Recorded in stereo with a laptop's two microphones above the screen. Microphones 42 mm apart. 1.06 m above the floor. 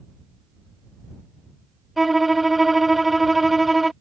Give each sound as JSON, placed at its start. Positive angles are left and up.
{"t": 2.0, "sound": "a violin", "side_deg": 0}